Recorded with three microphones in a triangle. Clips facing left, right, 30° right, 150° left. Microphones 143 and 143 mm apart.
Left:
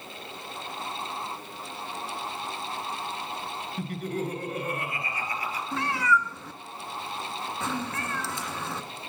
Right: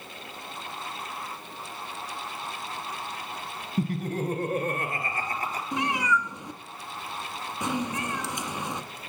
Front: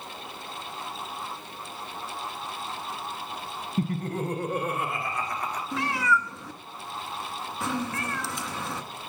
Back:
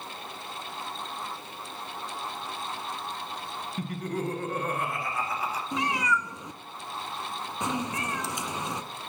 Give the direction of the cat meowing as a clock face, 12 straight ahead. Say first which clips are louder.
Left 1 dB, front 2 dB; 5 o'clock.